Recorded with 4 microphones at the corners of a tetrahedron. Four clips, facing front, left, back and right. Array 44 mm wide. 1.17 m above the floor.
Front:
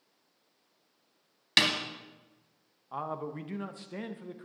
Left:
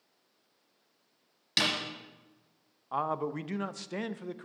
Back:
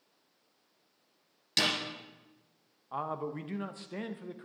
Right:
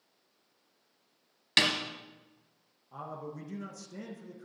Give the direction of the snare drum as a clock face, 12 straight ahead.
1 o'clock.